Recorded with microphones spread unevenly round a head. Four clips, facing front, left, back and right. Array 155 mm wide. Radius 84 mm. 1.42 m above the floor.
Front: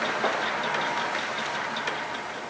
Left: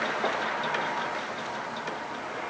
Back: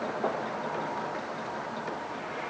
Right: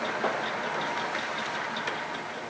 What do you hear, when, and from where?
Only background noise.